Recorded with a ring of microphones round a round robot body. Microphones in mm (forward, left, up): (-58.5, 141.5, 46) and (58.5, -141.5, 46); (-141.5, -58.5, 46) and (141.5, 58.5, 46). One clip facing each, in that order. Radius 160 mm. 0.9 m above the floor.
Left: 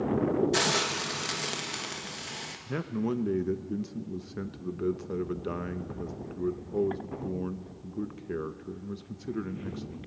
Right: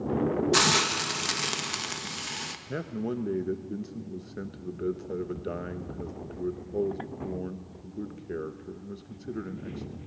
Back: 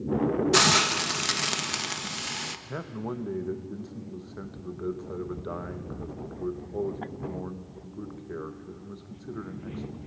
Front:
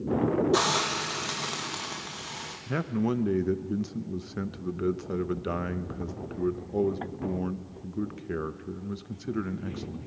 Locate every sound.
0.5 s a hiss: 130° right, 1.2 m
2.7 s a man speaking: 40° left, 0.8 m